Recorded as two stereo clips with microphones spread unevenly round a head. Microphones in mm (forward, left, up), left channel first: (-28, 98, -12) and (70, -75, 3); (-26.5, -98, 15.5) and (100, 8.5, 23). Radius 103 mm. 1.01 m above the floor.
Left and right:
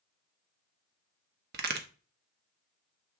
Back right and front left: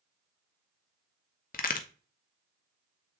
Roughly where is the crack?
Right.